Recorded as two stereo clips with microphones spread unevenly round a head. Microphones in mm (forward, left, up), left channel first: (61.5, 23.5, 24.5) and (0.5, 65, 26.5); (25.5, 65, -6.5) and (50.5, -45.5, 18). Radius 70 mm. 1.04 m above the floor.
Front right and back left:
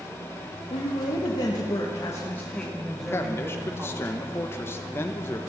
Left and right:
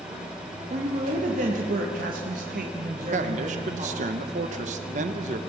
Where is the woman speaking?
50° right, 1.8 m; by 4.1 s 145° right, 2 m.